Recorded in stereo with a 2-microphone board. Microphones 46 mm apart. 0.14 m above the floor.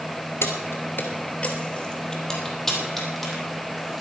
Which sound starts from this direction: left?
Keys jangling, at 0.4 s.